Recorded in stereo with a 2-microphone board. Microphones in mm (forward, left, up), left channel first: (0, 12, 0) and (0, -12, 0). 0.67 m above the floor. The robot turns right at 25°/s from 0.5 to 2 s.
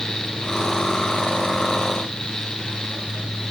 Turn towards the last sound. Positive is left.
No sound to turn to.